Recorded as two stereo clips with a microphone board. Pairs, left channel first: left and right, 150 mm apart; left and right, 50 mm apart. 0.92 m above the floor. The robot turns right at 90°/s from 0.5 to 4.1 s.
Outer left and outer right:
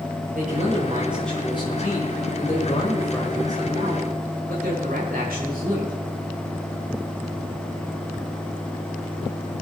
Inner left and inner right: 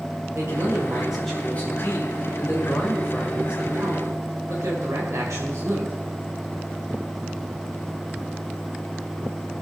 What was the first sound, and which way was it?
A man speaking, 65° right.